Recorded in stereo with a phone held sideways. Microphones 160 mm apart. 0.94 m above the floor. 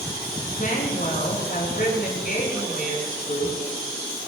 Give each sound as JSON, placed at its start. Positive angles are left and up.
{"t": 0.6, "sound": "a woman speaking", "side_deg": 60, "distance_m": 9.5}